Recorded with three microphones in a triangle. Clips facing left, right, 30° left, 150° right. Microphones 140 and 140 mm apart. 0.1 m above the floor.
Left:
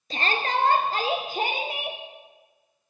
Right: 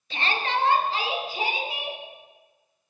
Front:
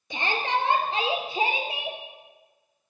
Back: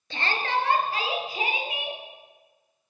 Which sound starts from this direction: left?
A shout, at 0.1 s.